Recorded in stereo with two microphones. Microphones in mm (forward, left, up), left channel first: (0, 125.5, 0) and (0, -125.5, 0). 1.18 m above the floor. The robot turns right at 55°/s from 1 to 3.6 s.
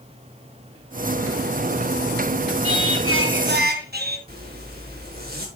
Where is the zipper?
40° right (ahead or behind), 3.5 m.